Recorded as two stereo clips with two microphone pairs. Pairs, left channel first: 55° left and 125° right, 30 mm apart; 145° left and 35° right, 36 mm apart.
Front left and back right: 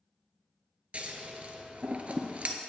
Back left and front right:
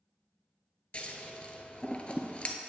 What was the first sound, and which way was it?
Scissors, 160° right.